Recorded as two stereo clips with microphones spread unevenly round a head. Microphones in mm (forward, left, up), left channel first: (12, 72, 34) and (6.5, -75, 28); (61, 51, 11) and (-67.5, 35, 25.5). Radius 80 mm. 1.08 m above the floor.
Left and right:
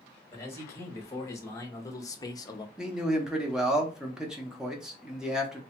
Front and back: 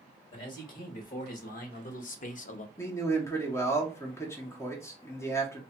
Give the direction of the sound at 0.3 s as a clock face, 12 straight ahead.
11 o'clock.